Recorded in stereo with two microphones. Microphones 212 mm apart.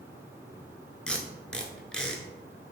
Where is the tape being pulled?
5° left (ahead or behind), 0.6 m.